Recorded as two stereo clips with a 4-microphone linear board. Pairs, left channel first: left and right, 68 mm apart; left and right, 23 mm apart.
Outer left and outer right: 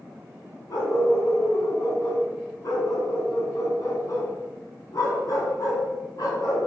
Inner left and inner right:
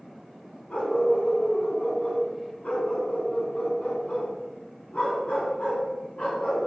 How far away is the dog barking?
About 3.5 m.